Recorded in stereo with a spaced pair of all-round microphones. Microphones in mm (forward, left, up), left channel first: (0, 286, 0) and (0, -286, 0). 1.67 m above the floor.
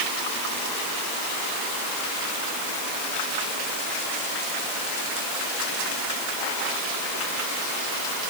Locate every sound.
Only background noise.